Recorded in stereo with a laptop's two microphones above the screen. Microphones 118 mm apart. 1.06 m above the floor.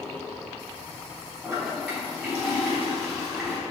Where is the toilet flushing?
Centre (ahead or behind), 3 m.